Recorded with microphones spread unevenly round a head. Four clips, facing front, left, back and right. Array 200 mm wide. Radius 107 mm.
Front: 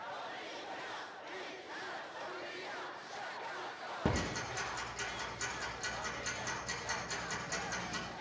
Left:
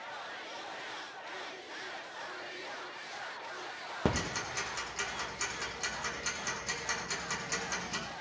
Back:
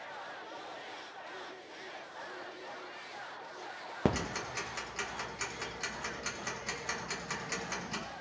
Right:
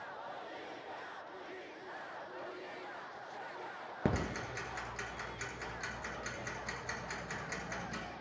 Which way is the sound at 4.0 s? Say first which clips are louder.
Left 2 dB, back 4 dB; 165° left.